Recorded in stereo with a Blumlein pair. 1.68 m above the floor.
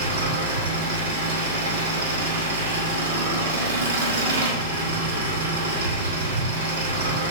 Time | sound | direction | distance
0.0 | an engine running | 60° right | 3.5 m